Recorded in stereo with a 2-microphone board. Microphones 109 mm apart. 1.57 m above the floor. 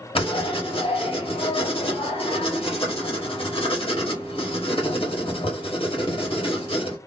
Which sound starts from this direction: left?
Writing, at 0.1 s.